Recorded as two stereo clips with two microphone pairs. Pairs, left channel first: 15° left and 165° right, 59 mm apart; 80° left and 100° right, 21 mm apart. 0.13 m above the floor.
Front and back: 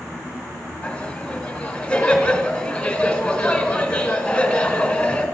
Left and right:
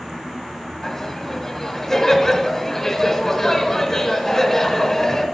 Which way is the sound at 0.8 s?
55° left.